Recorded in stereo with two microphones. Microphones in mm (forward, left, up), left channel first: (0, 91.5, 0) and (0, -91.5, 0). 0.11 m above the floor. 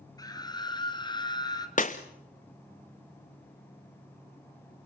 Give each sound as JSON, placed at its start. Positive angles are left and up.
{"t": 0.2, "sound": "a scream", "side_deg": 20, "distance_m": 1.7}
{"t": 1.8, "sound": "breaking glass", "side_deg": 50, "distance_m": 1.5}